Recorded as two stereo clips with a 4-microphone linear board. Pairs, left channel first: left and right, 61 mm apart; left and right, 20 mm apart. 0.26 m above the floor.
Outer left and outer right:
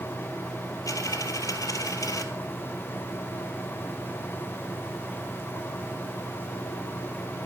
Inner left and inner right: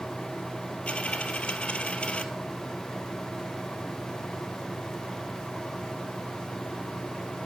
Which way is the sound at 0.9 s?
75° left (ahead or behind).